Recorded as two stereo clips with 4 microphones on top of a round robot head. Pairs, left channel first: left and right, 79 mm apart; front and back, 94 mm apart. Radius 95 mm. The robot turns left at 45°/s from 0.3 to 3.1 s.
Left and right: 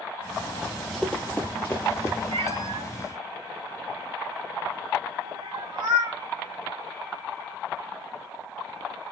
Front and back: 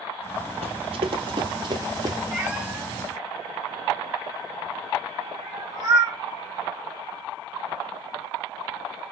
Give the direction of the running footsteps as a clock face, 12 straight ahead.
6 o'clock.